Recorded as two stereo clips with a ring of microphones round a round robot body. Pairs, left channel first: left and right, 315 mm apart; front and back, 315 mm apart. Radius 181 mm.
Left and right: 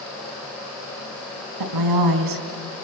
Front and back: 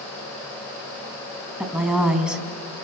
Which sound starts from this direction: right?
A woman speaking, at 1.6 s.